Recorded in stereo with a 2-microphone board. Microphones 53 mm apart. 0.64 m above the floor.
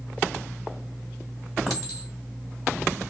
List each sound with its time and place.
1.7 s a clink: 5° right (ahead or behind), 2.5 m